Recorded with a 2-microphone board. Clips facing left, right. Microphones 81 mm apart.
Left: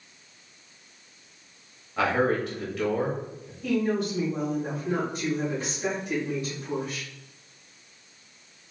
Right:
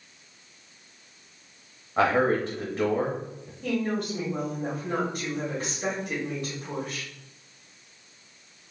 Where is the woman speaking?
45° right (ahead or behind), 2 m.